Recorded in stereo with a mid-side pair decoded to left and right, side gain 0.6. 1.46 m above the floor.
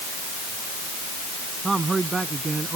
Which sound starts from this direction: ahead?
A man speaking, at 1.6 s.